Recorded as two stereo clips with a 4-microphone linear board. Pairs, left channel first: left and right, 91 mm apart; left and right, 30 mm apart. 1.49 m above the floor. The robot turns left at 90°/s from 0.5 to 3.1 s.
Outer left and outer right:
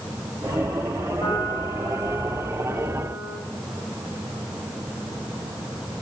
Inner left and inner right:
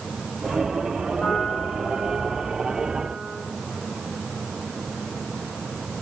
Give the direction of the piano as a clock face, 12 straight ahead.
8 o'clock.